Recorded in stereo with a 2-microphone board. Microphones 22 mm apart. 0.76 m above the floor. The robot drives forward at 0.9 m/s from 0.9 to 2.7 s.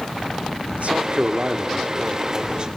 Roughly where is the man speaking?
Right.